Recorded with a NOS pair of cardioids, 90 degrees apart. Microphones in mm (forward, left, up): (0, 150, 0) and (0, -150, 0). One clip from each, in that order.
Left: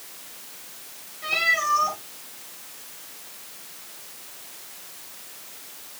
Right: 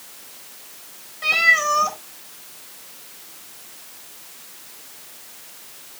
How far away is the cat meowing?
About 3 m.